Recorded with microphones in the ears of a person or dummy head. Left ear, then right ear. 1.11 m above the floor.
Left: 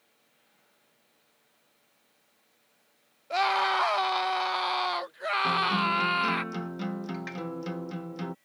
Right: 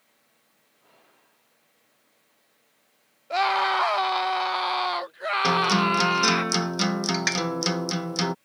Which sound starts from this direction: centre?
A scream, at 3.3 s.